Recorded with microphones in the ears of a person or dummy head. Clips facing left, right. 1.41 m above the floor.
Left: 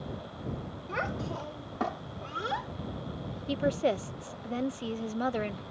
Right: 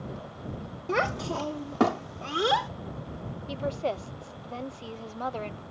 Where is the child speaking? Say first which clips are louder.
Right 7 dB; 65° right (ahead or behind); by 2.7 s 75° right (ahead or behind).